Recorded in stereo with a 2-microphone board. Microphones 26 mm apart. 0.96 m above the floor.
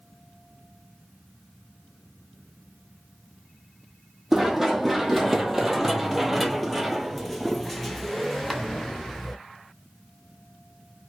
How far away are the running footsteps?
About 1.6 m.